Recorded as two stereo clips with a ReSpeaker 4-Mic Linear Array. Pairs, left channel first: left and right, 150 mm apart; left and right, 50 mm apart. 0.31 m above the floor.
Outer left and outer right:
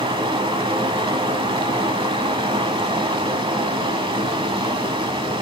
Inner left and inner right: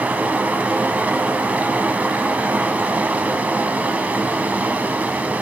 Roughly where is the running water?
Right.